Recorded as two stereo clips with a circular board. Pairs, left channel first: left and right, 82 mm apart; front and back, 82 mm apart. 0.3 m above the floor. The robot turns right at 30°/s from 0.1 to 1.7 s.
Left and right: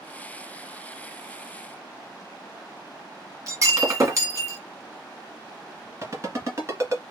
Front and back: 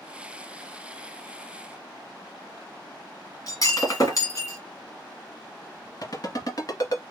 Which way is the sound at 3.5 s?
40° right.